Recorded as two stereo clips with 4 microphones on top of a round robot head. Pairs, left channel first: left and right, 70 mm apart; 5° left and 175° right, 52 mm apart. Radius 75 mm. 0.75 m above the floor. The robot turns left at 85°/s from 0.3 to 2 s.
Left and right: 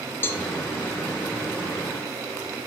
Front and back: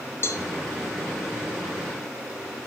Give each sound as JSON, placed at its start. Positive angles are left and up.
{"t": 0.2, "sound": "a cowbell", "azimuth_deg": 40, "distance_m": 0.8}